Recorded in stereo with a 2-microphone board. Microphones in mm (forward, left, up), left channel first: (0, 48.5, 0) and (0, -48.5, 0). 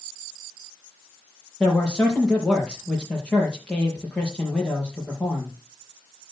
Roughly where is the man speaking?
Centre.